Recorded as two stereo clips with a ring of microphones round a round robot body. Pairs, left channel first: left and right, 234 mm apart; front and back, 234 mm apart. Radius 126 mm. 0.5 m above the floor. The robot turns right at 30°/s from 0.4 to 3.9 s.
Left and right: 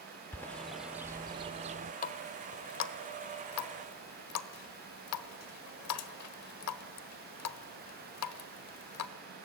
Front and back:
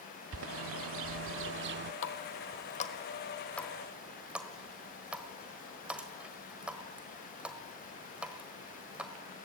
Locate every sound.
0.3 s a bird: 170° left, 0.5 m; by 1.9 s 145° right, 0.5 m
2.0 s a running tap: 40° left, 1.3 m; by 9.1 s 95° left, 1.3 m